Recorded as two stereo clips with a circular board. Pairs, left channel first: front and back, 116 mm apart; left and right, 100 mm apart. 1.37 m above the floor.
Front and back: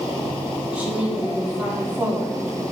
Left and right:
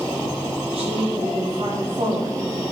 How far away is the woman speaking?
About 3.5 m.